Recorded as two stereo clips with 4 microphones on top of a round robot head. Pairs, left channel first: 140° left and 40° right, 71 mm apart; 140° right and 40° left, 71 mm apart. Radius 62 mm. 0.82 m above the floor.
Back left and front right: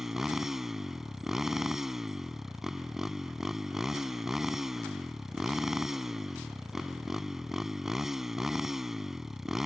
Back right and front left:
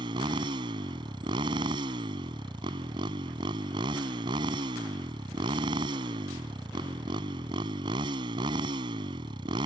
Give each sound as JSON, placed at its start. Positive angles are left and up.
{"t": 0.0, "sound": "a motorcycle", "azimuth_deg": 45}